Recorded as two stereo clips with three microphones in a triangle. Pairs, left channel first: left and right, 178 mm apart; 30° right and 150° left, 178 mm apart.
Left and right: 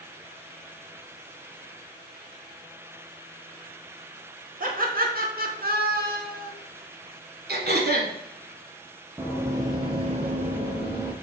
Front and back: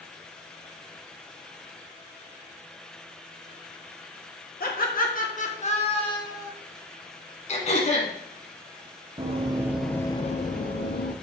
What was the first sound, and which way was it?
Laughter, 55° right.